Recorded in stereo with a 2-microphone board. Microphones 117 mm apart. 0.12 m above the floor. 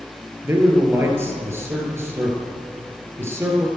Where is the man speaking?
20° right (ahead or behind), 3 m.